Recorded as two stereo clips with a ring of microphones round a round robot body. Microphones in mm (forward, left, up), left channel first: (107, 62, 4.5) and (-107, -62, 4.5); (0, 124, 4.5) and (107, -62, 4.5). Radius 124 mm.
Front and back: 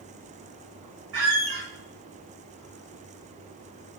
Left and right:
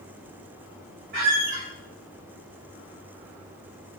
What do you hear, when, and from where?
1.1 s a squeak: 115° right, 1.5 m